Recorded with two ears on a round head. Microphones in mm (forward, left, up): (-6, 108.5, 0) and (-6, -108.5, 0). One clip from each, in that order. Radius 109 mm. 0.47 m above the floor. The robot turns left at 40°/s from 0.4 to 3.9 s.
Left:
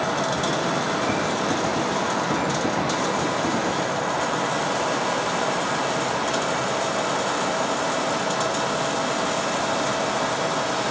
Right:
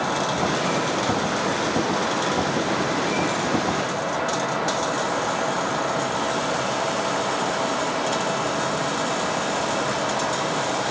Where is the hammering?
No hammering in this recording.